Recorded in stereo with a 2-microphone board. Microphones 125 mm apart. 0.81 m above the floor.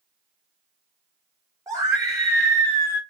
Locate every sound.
1.7 s a scream: 25° right (ahead or behind), 0.6 m